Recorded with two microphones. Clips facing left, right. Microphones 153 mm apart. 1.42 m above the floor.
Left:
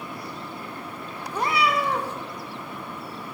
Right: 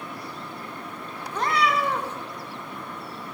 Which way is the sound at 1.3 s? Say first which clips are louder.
Even; 10° left (ahead or behind).